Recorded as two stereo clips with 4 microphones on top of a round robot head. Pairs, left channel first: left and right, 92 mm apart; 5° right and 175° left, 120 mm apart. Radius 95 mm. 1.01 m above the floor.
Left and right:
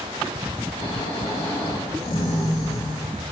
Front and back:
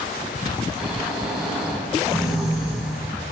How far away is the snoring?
About 9.5 m.